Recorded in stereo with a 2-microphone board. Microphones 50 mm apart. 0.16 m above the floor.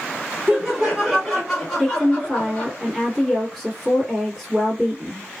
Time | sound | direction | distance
0.5 | laughter | 15° right (ahead or behind) | 1.6 m
1.8 | a woman speaking | 5° left (ahead or behind) | 1.7 m